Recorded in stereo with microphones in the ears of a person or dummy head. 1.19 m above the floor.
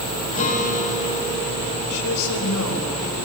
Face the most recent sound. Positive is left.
turn(degrees=90)